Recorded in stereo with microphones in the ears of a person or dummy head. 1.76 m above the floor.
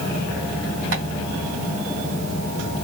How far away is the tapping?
About 2.5 m.